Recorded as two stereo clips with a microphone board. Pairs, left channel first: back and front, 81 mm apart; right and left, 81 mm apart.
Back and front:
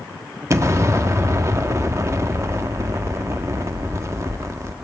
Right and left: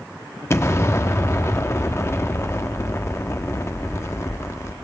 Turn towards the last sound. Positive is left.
turn(degrees=-45)